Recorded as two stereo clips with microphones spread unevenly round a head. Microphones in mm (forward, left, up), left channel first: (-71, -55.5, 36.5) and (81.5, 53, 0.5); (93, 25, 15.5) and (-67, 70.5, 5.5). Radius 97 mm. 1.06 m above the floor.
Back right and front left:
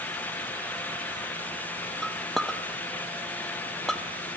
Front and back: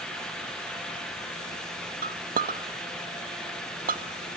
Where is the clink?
125° left, 1.0 m.